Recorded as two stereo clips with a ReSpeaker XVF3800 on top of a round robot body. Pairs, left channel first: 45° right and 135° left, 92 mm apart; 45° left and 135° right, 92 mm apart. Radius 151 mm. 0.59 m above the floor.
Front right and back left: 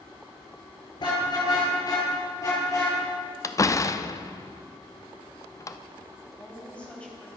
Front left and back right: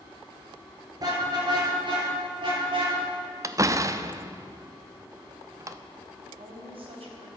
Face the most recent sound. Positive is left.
turn(degrees=-125)